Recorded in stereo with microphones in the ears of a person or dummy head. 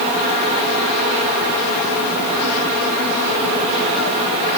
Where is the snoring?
No snoring in this recording.